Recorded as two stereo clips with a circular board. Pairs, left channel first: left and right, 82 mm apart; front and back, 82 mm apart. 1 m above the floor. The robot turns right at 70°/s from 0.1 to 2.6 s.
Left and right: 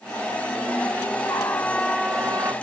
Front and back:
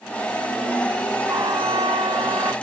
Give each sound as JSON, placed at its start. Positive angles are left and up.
{"t": 1.3, "sound": "a trumpet", "azimuth_deg": 135}